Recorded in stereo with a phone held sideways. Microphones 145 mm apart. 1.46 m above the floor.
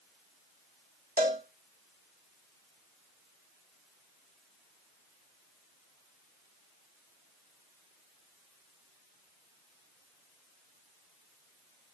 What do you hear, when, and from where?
1.2 s a cowbell: 85° right, 1.7 m